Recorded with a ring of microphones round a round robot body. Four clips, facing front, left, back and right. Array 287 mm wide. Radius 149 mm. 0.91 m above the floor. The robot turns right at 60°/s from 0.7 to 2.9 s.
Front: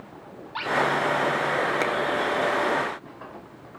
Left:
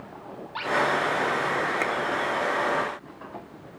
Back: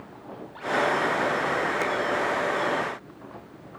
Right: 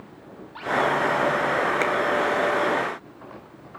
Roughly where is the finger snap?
Right.